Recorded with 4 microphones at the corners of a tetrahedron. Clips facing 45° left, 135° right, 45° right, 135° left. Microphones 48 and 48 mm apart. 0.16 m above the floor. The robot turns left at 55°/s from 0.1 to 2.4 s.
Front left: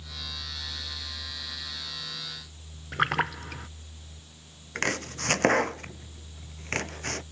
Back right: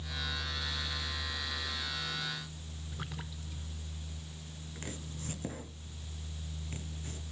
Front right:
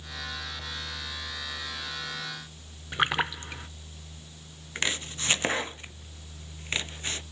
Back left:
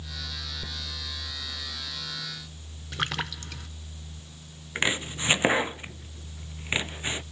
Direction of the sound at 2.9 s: 20° left.